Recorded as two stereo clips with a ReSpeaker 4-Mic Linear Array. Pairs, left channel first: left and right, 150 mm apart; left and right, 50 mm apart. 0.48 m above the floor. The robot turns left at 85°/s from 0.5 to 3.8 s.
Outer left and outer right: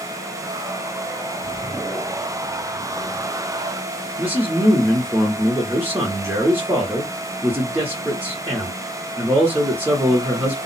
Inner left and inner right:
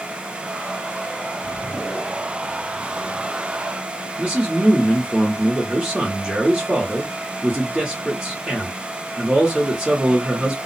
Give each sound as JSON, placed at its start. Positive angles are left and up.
{"t": 4.2, "sound": "a man speaking", "side_deg": -15, "distance_m": 0.9}